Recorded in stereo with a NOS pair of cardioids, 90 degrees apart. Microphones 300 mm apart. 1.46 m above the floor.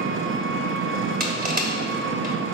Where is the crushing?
30° right, 1.6 m.